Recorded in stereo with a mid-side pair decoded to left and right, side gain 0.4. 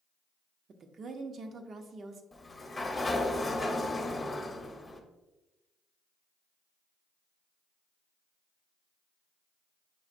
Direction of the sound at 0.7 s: 55° right.